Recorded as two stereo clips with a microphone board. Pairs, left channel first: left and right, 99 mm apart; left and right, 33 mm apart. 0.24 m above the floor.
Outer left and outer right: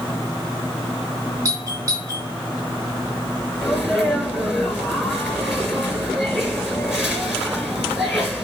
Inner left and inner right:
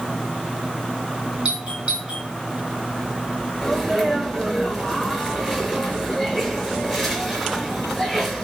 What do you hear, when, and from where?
1.4 s a doorbell: 35° right (ahead or behind), 4 m
3.6 s a sneeze: 5° right (ahead or behind), 3.5 m